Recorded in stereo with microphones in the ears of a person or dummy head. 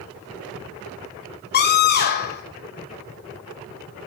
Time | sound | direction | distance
1.5 | a scream | 50° left (ahead or behind) | 3 m